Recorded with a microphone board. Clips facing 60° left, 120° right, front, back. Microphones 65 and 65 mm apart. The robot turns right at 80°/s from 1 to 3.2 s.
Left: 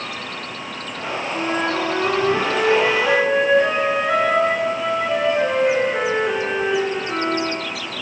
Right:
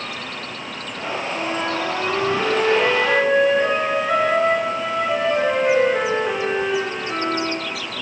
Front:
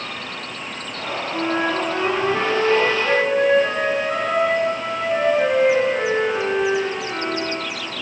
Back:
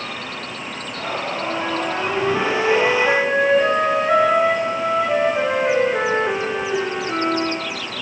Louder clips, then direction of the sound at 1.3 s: Left 4 dB, front 5 dB; 5° left.